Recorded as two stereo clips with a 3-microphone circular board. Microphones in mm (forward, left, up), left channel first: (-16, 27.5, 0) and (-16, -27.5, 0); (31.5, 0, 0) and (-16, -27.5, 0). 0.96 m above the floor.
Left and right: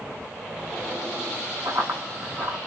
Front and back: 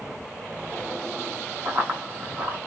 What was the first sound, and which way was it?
Running footsteps, 105° right.